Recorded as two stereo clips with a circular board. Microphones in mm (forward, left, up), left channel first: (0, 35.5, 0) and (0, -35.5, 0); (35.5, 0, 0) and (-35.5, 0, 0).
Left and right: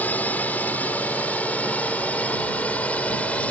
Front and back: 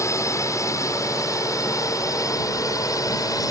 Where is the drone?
30° left; by 3.5 s 20° left.